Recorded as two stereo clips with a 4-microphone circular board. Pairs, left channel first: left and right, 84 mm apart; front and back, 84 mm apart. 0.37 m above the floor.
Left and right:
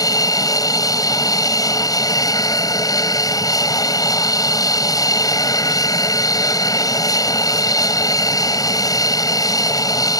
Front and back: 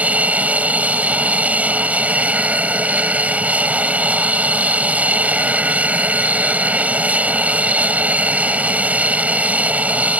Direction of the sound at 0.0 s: 110° left.